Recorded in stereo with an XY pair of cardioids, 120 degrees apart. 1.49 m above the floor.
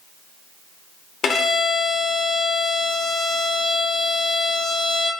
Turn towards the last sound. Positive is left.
turn(degrees=50)